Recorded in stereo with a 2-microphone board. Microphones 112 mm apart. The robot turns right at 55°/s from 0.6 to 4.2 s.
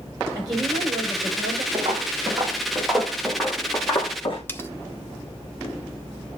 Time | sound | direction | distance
0.3 | a woman speaking | 145° right | 5.5 m
1.7 | footsteps | 55° right (ahead or behind) | 2.5 m
4.5 | cutlery clinking | 20° left (ahead or behind) | 0.7 m